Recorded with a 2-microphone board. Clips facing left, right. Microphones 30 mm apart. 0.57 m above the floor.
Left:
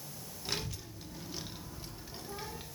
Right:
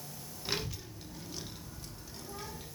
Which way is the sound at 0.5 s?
15° right (ahead or behind).